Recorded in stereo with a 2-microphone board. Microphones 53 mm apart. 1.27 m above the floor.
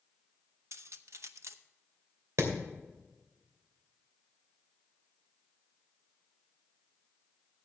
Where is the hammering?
75° right (ahead or behind), 2.5 m.